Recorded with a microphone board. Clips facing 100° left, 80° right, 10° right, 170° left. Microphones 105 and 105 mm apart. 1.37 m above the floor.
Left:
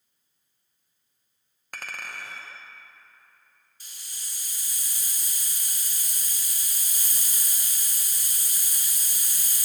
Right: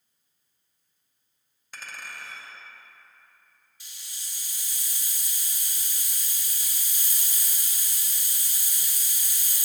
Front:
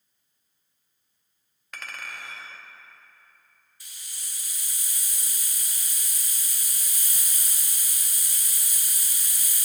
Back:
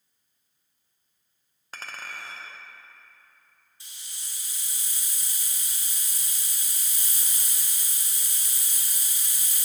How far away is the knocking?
No knocking in this recording.